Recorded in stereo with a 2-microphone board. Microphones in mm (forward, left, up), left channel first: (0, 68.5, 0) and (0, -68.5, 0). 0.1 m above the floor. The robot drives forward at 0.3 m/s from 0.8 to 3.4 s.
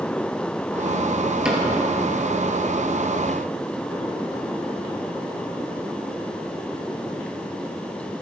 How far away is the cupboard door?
About 1.6 m.